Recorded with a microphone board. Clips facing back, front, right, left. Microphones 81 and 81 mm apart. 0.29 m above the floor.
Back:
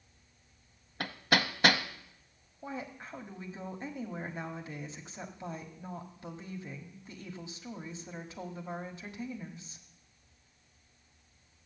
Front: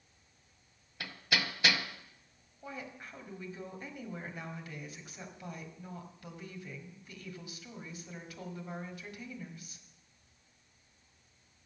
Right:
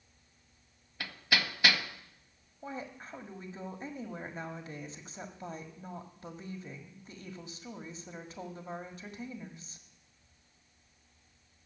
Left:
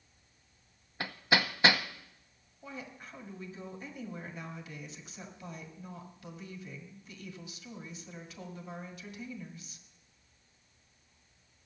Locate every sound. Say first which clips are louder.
1.0 s hammering: back 5 dB, left 3 dB; 145° left, 0.9 m
2.6 s a woman speaking: back 4 dB, right 4 dB; 125° right, 1.9 m